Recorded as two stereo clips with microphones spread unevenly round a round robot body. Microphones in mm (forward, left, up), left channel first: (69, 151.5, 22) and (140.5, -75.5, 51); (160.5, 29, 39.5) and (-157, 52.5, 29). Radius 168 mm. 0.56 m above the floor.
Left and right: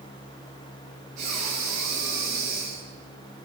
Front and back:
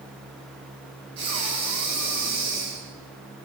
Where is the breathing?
140° right, 5 m.